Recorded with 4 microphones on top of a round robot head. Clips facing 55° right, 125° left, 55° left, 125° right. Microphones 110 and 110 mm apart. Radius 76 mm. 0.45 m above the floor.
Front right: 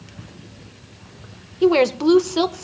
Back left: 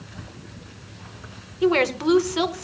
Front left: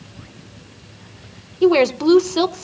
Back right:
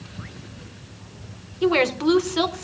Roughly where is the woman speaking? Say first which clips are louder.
Front right 5 dB, front left 6 dB; ahead.